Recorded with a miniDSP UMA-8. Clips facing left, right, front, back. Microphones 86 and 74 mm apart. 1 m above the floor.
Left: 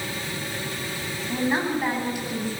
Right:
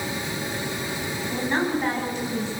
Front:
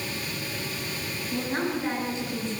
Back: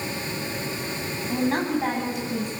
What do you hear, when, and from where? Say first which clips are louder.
1.3 s a woman speaking: left 1 dB, back 5 dB; 170° left, 9.5 m